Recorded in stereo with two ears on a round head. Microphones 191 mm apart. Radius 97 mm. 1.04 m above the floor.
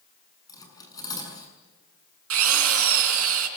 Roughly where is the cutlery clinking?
Centre.